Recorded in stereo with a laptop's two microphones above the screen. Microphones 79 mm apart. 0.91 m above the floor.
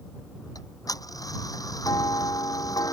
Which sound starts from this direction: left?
Ticking, at 0.6 s.